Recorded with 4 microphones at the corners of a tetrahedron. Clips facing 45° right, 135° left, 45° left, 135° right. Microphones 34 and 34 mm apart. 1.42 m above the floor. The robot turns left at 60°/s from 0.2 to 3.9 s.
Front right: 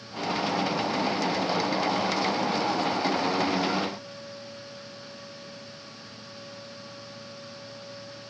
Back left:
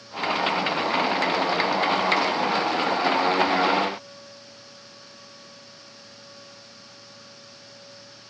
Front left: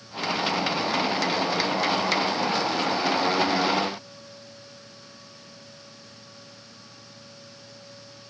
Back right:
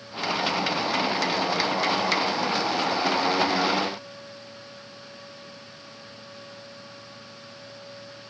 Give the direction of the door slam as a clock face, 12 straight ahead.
No door slam in this recording.